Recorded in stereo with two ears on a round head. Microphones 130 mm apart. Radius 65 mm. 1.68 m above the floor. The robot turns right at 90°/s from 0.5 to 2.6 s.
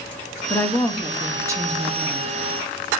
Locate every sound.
0.5 s a woman speaking: 20° left (ahead or behind), 0.5 m; by 2.3 s 25° right (ahead or behind), 0.5 m